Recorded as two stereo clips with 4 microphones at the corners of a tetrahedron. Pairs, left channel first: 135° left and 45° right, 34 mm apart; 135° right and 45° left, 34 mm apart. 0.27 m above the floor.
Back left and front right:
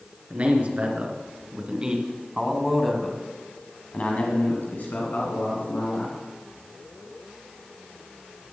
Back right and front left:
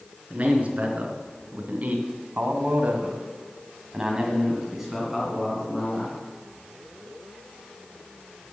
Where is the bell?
No bell in this recording.